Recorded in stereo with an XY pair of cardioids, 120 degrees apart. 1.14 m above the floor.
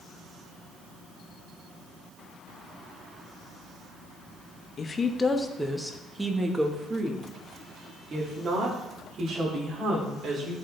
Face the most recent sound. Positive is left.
turn(degrees=-50)